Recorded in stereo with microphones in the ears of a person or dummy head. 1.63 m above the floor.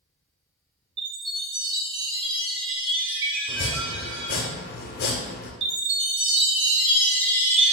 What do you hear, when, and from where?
1.0 s a chime: 25° right (ahead or behind), 1.7 m
3.5 s chopping: 50° left (ahead or behind), 0.6 m
5.6 s a chime: 30° right (ahead or behind), 1.9 m